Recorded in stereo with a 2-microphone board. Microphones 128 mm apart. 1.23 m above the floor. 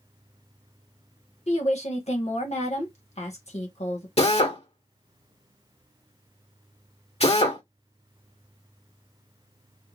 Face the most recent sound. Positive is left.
turn(degrees=55)  # may be behind; listen again after turning